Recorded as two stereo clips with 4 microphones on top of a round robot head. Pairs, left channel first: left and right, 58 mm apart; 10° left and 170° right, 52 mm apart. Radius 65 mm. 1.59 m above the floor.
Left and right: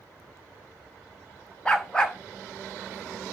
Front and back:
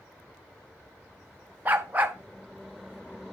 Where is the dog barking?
160° left, 0.9 m.